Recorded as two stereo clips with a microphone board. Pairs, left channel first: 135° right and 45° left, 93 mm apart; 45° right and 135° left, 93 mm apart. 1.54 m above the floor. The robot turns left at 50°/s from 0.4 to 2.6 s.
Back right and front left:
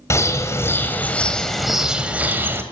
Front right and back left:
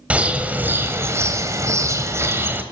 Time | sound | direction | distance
0.1 | a bird | 165° right | 1.5 m